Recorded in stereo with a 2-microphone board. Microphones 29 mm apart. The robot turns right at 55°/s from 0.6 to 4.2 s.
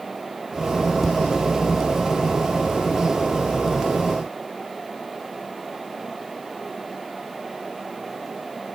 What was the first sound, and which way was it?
Tapping, 10° left (ahead or behind).